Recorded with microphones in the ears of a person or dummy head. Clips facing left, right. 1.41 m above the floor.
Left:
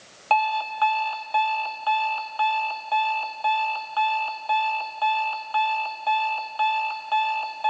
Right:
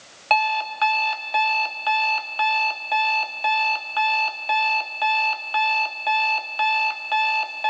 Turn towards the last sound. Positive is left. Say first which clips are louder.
# even
turn(degrees=-20)  # may be behind; listen again after turning